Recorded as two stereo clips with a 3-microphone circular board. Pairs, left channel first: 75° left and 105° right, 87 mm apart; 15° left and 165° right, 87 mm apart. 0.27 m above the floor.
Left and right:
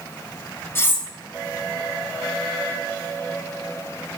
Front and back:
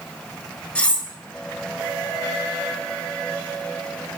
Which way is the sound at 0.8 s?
75° left.